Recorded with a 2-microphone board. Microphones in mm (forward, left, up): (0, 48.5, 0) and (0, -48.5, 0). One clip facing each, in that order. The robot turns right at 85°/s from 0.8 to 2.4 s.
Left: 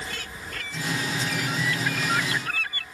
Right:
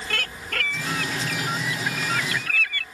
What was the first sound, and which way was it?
A bird, 100° right.